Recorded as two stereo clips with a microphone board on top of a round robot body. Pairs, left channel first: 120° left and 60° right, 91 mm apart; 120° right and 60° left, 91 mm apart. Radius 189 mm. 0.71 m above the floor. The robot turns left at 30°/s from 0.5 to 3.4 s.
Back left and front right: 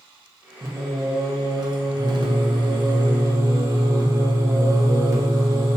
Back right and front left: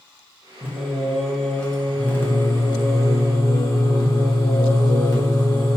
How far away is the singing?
About 1.3 m.